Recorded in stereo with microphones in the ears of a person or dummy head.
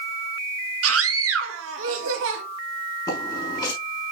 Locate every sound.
0.8 s a scream: 80° right, 1.9 m; by 2.4 s 75° right (ahead or behind), 3 m
3.1 s footsteps: 25° left (ahead or behind), 4.5 m